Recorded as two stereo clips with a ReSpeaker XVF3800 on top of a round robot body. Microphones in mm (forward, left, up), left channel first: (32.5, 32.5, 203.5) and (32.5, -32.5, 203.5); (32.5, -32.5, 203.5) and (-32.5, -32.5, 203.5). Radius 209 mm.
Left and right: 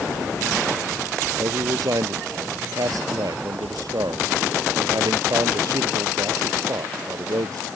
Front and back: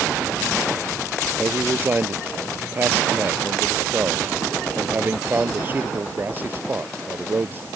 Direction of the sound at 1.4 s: 120° right.